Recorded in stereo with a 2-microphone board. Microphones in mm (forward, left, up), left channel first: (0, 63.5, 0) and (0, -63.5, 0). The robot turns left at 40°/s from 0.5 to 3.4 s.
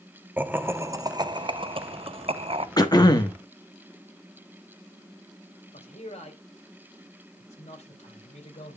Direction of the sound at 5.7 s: 60° left (ahead or behind).